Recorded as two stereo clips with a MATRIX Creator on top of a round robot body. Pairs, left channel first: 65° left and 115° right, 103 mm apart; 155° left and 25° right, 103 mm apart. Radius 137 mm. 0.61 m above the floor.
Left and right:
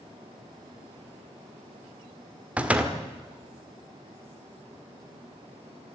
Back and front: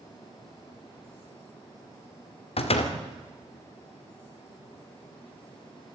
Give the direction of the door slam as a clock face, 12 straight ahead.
6 o'clock.